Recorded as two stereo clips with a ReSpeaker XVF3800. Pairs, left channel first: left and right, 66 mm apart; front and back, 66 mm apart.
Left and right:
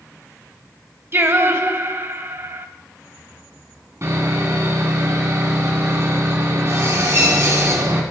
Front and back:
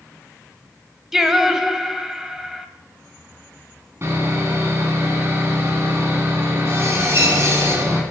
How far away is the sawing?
About 2.5 m.